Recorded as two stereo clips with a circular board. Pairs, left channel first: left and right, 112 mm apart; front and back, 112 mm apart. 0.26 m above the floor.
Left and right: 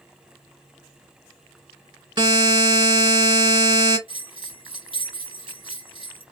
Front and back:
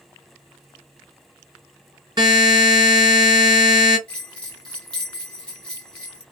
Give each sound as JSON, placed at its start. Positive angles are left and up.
{"t": 2.2, "sound": "a buzzer", "azimuth_deg": -130, "distance_m": 1.8}
{"t": 4.1, "sound": "a bell", "azimuth_deg": -80, "distance_m": 2.0}